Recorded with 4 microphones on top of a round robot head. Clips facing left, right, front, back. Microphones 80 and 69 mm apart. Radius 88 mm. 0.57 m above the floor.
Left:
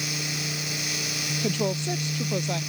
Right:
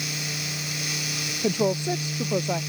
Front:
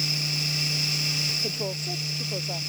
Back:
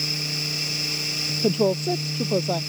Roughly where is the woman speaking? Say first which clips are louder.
Right 4 dB, back 16 dB; behind.